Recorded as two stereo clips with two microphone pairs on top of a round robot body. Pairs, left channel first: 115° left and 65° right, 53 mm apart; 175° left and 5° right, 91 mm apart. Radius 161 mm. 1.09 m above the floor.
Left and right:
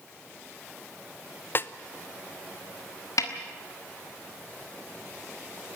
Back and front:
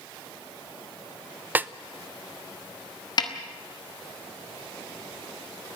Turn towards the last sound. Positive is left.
turn(degrees=135)